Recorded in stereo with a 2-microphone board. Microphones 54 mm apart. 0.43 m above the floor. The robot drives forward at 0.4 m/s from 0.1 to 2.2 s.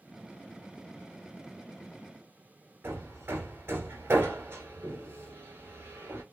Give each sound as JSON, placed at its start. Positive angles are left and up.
{"t": 2.8, "sound": "hammering", "side_deg": -45, "distance_m": 1.6}